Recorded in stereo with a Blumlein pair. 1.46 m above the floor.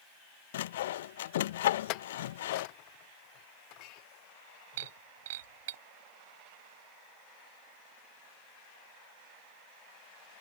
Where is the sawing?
55° left.